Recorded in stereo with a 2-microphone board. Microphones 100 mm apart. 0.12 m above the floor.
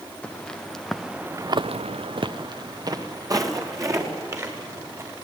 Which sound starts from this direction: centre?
Footsteps, at 0.2 s.